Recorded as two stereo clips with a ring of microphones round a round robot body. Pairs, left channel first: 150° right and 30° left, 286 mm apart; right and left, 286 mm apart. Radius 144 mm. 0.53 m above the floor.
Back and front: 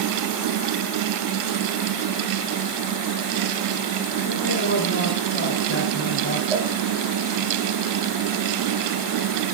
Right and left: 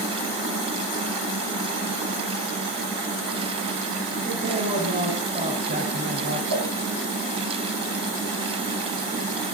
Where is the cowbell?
110° left, 7.5 m.